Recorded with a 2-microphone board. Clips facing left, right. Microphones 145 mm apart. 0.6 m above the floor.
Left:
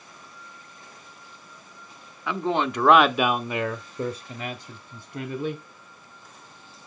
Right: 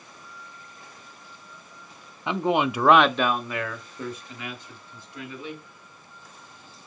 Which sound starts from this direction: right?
A man speaking, at 2.3 s.